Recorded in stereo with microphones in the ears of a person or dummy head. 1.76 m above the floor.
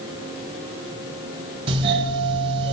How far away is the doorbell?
About 2.0 m.